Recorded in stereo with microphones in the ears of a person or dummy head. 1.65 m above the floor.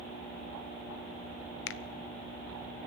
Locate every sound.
1.7 s a finger snap: 75° left (ahead or behind), 0.6 m